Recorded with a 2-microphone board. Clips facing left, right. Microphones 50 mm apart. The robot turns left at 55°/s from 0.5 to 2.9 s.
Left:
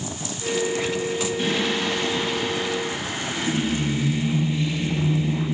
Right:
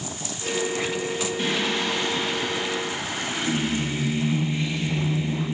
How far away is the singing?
About 2.0 m.